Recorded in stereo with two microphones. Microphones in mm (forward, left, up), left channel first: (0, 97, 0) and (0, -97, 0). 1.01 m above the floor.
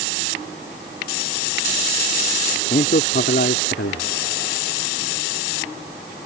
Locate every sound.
2.7 s a man speaking: 50° left (ahead or behind); by 4.1 s 85° left